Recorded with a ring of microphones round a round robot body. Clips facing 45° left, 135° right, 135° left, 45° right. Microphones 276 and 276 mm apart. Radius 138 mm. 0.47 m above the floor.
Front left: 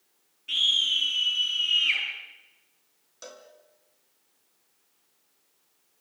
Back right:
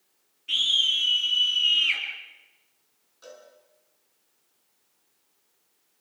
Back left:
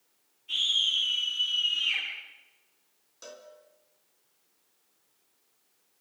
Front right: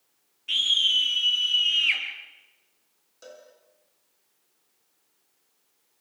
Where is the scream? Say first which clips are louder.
Back right 1 dB, front right 5 dB; 50° right, 10 m; by 2.0 s 45° right, 9.5 m.